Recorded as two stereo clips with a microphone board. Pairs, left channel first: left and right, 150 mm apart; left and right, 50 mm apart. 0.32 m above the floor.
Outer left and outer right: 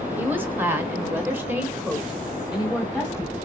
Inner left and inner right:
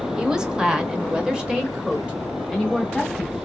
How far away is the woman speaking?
About 1.3 m.